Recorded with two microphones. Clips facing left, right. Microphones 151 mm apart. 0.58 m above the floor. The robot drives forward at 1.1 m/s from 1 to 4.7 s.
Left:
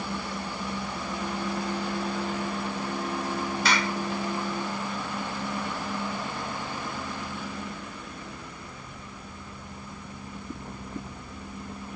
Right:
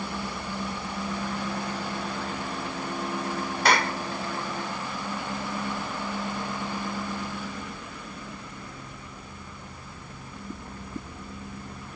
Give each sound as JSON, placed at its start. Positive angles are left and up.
{"t": 3.6, "sound": "a clap", "side_deg": -55}